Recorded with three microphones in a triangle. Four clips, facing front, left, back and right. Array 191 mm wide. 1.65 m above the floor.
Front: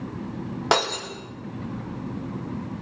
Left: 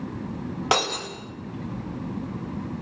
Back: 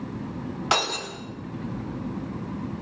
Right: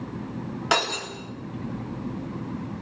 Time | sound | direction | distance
0.7 | breaking glass | 25° left | 5 m